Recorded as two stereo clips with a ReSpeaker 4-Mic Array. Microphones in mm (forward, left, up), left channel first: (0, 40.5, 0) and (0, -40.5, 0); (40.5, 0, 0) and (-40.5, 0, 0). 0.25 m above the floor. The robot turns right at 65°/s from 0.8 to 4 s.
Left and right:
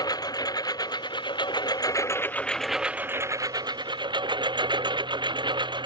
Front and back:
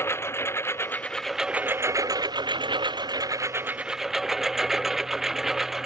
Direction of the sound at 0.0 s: 55° left.